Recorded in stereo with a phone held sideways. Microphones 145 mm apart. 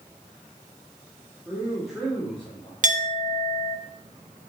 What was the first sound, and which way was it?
A man speaking, 5° right (ahead or behind).